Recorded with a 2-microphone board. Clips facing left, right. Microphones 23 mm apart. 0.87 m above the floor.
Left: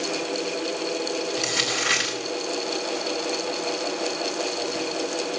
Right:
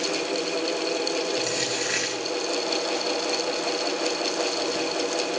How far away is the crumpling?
About 8 m.